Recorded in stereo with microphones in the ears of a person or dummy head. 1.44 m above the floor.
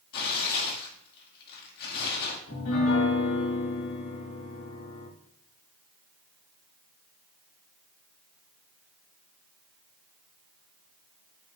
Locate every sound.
0.1 s tearing paper: 60° left (ahead or behind), 1.9 m
2.5 s a piano: 70° left (ahead or behind), 2 m